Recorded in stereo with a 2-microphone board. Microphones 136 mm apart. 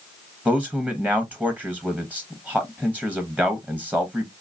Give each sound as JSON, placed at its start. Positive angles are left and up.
{"t": 0.5, "sound": "a man speaking", "side_deg": -10, "distance_m": 0.8}